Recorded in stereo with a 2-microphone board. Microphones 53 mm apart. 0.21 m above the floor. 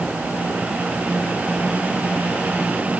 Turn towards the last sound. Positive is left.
No sound to turn to.